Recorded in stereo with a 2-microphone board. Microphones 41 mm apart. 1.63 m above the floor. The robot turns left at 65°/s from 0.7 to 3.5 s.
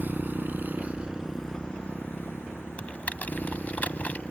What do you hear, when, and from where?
0.0 s a motorcycle: 50° right (ahead or behind); by 4.3 s 35° left (ahead or behind)
2.8 s typing on a keyboard: 35° left (ahead or behind); by 4.2 s 40° left (ahead or behind)